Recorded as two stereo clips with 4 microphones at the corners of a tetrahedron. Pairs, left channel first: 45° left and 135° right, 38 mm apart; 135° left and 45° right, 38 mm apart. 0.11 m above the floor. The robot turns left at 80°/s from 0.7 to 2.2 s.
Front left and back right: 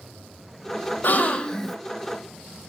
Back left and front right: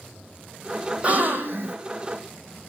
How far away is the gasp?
About 0.7 m.